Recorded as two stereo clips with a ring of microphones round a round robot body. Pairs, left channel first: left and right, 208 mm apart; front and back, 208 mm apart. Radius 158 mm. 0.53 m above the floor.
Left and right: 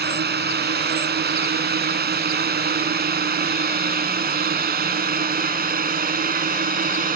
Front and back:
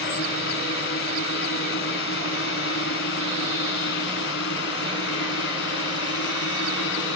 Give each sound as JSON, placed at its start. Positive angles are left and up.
{"t": 0.0, "sound": "a drone", "azimuth_deg": -50}